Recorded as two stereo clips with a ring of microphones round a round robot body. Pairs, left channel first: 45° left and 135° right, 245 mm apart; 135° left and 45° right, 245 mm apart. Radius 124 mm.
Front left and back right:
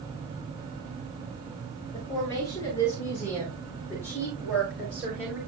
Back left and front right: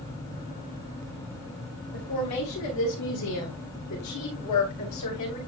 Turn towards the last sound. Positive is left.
turn(degrees=135)